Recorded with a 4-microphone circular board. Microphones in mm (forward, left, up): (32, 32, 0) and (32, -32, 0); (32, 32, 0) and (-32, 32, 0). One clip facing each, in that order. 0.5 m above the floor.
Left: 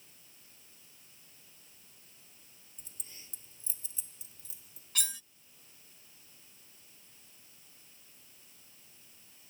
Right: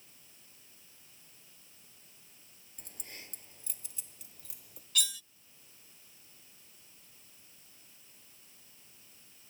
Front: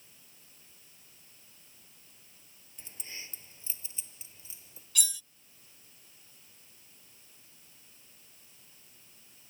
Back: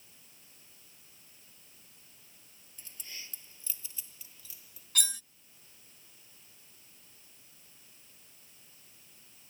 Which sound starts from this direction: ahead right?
Keys jangling, at 2.8 s.